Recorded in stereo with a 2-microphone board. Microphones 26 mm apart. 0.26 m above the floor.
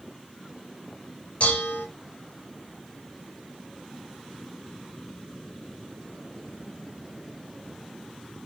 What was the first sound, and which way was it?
Dishes clattering, 50° left (ahead or behind).